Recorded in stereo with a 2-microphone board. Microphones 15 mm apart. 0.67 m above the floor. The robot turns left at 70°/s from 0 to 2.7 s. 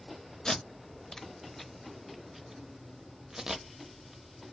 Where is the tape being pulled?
55° left (ahead or behind), 0.7 m; by 4.5 s 40° right (ahead or behind), 0.7 m.